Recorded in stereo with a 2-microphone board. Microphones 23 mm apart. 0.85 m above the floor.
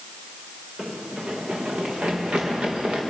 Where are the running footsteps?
40° right (ahead or behind), 4 m; by 3.0 s 50° right (ahead or behind), 5 m.